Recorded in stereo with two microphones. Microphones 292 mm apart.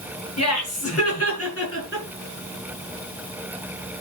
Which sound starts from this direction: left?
Laughter, at 0.4 s.